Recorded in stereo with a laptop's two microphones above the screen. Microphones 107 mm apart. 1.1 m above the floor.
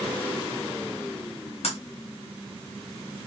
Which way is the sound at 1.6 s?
70° left (ahead or behind).